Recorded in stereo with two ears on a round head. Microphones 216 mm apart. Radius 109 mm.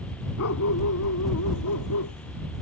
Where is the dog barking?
65° left (ahead or behind); by 2.1 s 85° left.